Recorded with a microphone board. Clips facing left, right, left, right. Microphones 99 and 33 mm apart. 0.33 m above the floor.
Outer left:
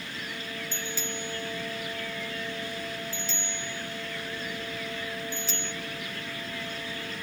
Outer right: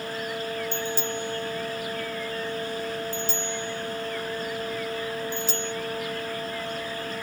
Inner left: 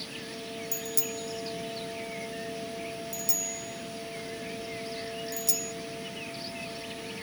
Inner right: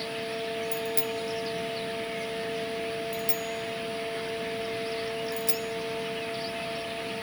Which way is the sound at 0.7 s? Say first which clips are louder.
Outer right 7 dB, inner right 5 dB; 40° right (ahead or behind).